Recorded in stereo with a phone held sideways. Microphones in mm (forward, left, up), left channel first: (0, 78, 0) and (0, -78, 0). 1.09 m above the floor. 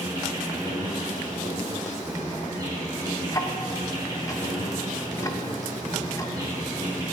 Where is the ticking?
25° left (ahead or behind), 0.7 m.